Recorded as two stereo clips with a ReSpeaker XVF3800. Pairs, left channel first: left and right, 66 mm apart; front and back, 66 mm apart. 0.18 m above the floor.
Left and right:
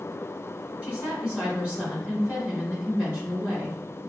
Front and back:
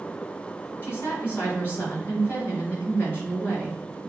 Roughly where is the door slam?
No door slam in this recording.